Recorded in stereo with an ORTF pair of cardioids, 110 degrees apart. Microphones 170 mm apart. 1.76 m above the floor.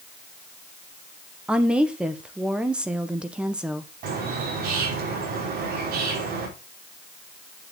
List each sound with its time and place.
1.5 s a woman speaking: 5° right, 1.2 m
4.0 s a bird: 65° right, 4.5 m